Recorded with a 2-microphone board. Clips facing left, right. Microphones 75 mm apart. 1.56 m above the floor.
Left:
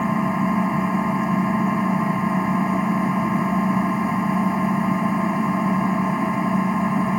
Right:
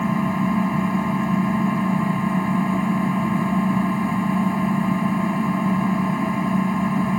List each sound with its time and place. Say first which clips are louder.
0.0 s an engine running: left 1 dB; 10° left (ahead or behind)